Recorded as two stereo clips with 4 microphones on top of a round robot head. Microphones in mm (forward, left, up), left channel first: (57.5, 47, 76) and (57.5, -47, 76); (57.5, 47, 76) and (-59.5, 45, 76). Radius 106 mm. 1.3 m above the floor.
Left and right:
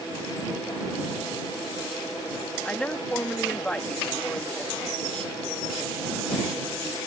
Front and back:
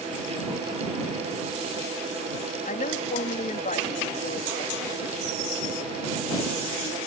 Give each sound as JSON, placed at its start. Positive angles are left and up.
{"t": 2.6, "sound": "a woman speaking", "azimuth_deg": 10}